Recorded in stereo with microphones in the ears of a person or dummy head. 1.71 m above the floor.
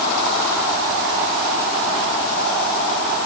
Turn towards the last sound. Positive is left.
No sound to turn to.